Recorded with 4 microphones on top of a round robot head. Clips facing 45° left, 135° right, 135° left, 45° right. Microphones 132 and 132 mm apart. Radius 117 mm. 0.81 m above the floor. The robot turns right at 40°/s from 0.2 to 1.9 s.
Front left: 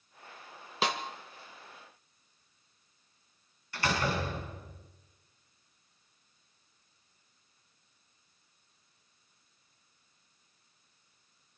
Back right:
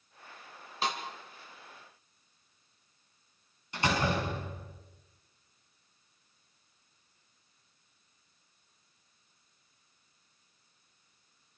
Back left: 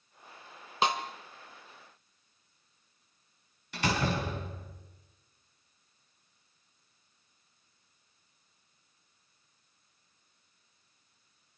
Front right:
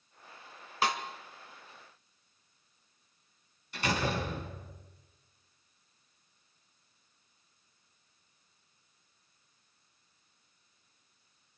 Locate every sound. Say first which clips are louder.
0.8 s a snare drum: front left 2 dB, back left 2 dB; 70° left, 1.3 m; by 1.0 s 75° left, 1.3 m
3.7 s a door slam: back right 2 dB, back left 1 dB; 150° left, 6 m